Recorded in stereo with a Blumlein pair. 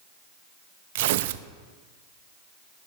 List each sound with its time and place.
0.9 s tearing paper: 50° right, 0.7 m